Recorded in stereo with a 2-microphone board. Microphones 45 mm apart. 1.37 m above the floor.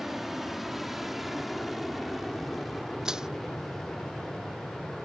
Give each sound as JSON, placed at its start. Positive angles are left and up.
{"t": 0.0, "sound": "an aircraft", "side_deg": -5}
{"t": 3.0, "sound": "crushing", "side_deg": -15}